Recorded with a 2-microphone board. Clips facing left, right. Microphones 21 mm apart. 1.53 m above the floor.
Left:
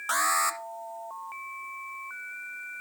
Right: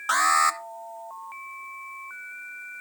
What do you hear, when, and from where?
0.1 s an alarm: 10° right (ahead or behind), 0.6 m